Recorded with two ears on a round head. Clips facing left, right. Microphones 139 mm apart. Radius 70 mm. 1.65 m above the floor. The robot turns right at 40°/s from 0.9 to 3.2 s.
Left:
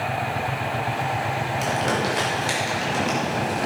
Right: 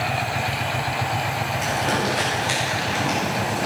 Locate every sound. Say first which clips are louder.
1.6 s crumpling: even; 75° left (ahead or behind), 6.5 m; by 3.7 s 40° left (ahead or behind), 6.5 m